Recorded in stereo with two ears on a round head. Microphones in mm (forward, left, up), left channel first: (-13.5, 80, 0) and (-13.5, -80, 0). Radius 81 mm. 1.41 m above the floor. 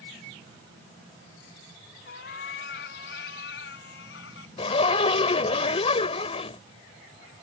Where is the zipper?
35° left (ahead or behind).